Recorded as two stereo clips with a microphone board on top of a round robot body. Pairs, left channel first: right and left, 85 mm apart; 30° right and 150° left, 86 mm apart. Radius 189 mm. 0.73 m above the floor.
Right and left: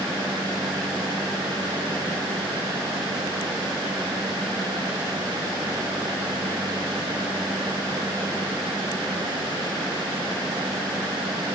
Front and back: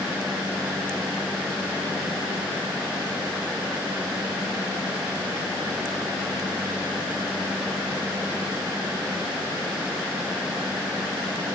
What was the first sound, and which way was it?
Only background noise.